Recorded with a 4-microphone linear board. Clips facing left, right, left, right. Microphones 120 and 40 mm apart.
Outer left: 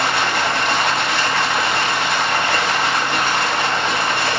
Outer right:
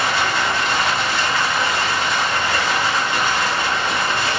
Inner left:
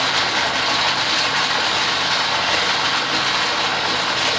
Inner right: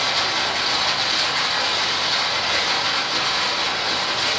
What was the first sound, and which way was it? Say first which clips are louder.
Running water: outer left 1 dB, inner left 3 dB; 65° left (ahead or behind).